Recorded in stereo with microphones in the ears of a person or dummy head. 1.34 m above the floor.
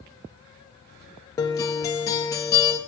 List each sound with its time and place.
1.4 s a guitar: 20° left (ahead or behind), 0.7 m